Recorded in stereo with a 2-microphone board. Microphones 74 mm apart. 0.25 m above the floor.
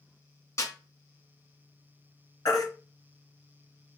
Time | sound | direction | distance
0.6 | a snare drum | 50° left (ahead or behind) | 3 m
2.5 | a baby crying | 65° left (ahead or behind) | 2.0 m